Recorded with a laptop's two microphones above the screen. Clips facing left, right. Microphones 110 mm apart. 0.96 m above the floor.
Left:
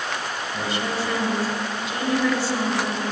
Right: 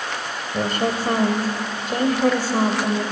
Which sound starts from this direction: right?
A woman speaking, at 0.5 s.